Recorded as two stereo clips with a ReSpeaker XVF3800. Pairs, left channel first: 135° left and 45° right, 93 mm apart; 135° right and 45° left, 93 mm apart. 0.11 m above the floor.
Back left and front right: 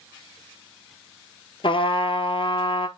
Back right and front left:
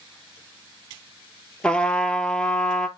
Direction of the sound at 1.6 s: 145° left.